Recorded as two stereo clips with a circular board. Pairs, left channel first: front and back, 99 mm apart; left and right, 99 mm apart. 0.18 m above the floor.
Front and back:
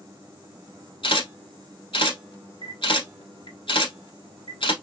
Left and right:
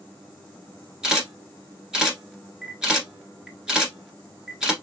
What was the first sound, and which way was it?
A camera shutter, 10° right.